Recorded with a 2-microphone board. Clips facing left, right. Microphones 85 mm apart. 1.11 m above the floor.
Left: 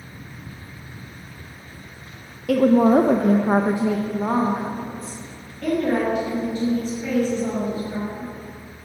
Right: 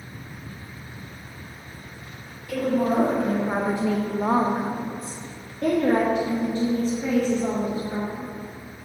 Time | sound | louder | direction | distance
2.5 | a woman speaking | left 8 dB | 80° left | 0.7 m